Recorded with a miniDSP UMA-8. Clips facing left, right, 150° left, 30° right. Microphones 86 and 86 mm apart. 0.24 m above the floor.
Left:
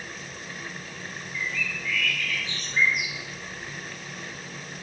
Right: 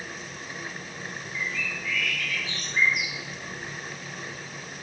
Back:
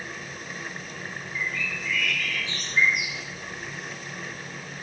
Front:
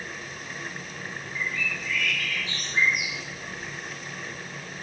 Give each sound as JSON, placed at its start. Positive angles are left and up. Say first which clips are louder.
{"t": 1.3, "sound": "a bird", "louder": "left 1 dB, even", "azimuth_deg": -15, "distance_m": 2.5}